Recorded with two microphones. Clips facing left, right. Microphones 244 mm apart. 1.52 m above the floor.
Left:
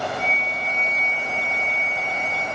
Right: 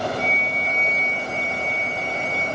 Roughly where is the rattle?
I don't hear a rattle.